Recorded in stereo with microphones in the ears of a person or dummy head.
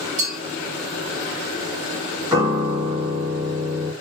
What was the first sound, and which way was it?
A clink, 75° right (ahead or behind).